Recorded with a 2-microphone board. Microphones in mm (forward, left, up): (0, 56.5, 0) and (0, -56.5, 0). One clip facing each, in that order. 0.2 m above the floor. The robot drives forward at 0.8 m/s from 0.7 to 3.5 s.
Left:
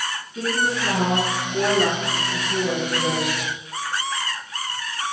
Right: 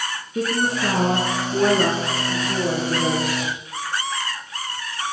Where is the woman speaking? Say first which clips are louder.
Right 2 dB; 55° right (ahead or behind), 2.5 m; by 3.5 s 35° right (ahead or behind), 3.5 m.